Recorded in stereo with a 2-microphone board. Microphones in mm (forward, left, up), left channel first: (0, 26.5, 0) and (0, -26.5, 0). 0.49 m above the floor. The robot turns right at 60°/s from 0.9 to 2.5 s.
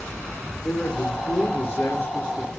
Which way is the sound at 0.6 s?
55° left.